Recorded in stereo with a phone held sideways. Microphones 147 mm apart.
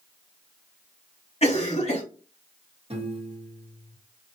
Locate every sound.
1.4 s a cough: 45° left (ahead or behind), 1.9 m
2.9 s a piano: 40° right (ahead or behind), 1.2 m